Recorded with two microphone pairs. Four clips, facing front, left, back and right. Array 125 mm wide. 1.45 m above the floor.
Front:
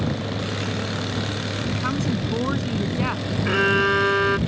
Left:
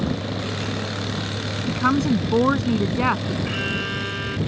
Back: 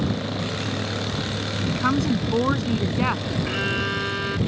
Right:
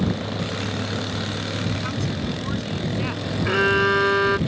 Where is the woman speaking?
110° left; by 3.4 s 100° left.